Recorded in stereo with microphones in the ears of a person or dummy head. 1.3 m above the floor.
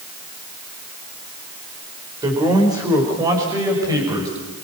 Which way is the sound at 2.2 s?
20° right (ahead or behind).